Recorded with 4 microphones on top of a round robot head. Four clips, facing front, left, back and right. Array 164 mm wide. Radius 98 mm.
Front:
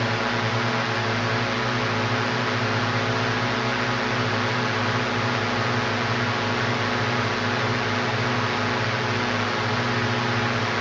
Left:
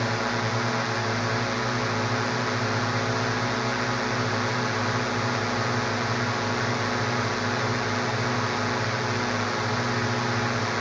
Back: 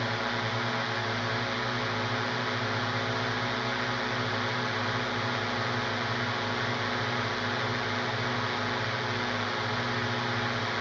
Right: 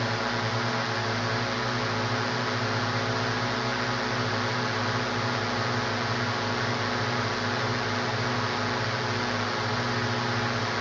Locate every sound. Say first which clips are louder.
0.0 s a drone: left 2 dB, front 7 dB; 20° left